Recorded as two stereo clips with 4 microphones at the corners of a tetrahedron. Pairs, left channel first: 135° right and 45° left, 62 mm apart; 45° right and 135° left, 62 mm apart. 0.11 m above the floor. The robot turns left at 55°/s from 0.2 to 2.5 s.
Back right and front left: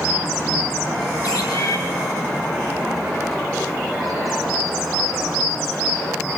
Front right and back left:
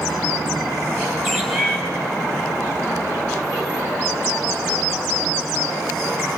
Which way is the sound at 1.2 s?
125° right.